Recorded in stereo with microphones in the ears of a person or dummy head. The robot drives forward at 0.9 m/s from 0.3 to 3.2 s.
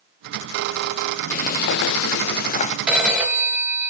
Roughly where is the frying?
Left.